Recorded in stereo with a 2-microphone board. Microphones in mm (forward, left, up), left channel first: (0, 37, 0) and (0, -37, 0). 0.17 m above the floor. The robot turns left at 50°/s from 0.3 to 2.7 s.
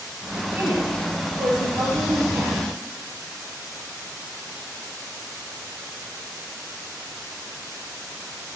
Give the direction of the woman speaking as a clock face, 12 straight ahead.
1 o'clock.